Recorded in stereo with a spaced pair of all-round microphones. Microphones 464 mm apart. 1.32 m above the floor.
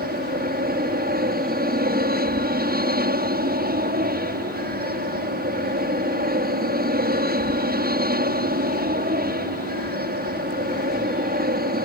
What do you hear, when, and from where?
0.0 s an aircraft: 20° right (ahead or behind)